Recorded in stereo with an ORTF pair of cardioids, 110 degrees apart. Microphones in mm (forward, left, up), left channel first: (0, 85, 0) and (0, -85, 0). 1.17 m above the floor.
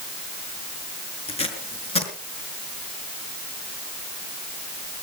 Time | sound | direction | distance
1.3 | tape being pulled | 35° left | 5.5 m